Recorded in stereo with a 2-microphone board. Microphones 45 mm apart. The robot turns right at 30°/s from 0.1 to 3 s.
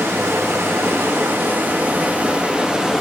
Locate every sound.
0.0 s running water: 100° right, 0.8 m; by 3.0 s 15° right, 0.8 m